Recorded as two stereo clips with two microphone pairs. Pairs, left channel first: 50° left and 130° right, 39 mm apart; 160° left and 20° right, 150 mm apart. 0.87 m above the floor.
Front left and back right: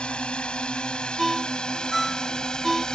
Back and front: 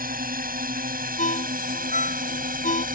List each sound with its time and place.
0.0 s a drone: 15° right; by 3.0 s 25° right
1.2 s a ringtone: 135° left